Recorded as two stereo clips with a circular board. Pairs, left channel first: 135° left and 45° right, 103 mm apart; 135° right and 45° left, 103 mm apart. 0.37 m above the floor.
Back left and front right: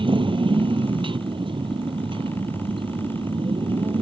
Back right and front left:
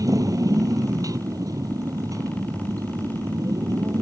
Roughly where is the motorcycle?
Ahead.